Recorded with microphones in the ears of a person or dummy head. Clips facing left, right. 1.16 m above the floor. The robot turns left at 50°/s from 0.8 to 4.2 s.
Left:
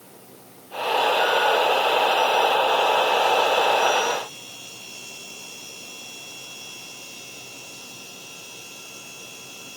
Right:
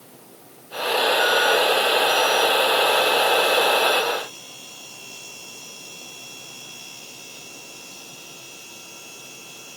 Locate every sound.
Only background noise.